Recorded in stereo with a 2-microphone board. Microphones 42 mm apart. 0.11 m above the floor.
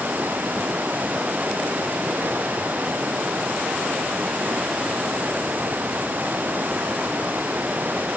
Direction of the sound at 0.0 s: 50° right (ahead or behind).